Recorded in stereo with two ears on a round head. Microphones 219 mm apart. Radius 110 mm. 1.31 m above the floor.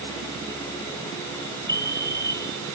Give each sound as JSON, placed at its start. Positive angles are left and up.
{"t": 1.7, "sound": "a fire alarm", "side_deg": 10}